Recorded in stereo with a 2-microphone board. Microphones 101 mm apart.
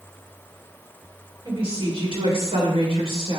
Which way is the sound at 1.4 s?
55° right (ahead or behind).